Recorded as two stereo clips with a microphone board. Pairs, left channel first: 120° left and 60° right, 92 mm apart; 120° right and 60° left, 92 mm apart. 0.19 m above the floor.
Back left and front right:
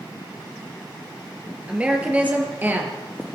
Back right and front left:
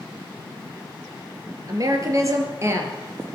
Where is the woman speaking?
15° left, 3.5 m; by 3.3 s straight ahead, 3 m.